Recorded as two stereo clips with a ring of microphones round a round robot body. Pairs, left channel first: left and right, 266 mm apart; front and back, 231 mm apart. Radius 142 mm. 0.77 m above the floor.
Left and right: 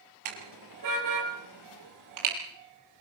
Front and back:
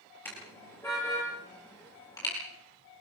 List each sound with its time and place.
0.2 s a car horn: 85° right, 6.5 m; by 2.3 s 75° right, 8.5 m